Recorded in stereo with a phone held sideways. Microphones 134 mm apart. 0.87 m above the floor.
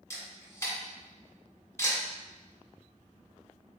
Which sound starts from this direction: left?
A camera shutter, at 0.1 s.